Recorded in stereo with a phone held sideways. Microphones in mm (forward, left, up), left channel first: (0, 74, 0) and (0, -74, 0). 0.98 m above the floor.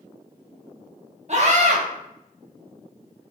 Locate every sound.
1.3 s a scream: 45° right (ahead or behind), 1.4 m